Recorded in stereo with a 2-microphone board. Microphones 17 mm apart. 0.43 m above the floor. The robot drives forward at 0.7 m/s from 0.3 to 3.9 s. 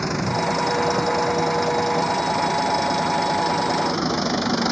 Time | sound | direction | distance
0.0 | an engine running | 5° left (ahead or behind) | ?